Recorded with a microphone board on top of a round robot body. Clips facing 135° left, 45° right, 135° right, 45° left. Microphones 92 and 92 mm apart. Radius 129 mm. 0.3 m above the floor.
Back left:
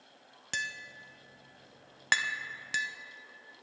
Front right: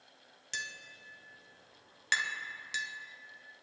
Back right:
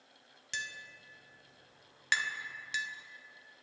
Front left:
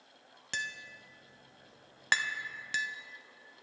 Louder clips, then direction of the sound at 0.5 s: Back left 5 dB, front left 3 dB; 95° left.